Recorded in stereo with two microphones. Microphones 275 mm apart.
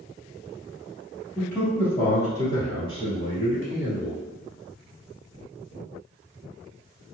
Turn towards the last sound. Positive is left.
turn(degrees=35)  # may be behind; listen again after turning